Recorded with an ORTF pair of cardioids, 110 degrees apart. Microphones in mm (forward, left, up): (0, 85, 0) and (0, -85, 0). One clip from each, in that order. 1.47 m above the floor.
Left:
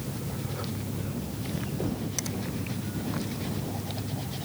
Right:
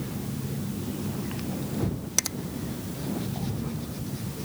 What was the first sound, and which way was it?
A finger snap, 60° right.